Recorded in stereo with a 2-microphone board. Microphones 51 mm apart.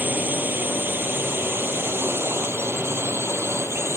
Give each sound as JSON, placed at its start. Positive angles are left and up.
{"t": 0.0, "sound": "a drone", "side_deg": -35}